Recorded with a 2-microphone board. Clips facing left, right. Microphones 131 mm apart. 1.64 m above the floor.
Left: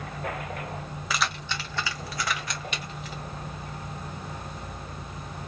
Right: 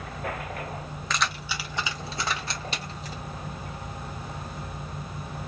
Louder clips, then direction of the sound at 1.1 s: Even; 10° left (ahead or behind).